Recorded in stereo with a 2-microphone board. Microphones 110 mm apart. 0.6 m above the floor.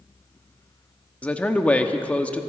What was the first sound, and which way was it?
A man speaking, 10° left (ahead or behind).